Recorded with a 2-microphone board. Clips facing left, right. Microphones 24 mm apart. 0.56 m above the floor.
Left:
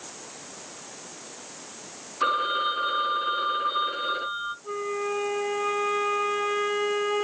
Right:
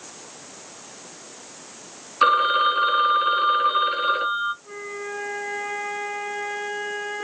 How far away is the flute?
About 1.1 m.